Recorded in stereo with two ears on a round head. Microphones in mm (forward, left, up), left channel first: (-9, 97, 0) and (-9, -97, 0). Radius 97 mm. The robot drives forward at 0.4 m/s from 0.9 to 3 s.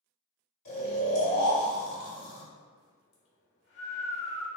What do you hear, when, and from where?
0.7 s snoring: 40° left (ahead or behind), 1.5 m; by 4.5 s 70° left (ahead or behind), 1.1 m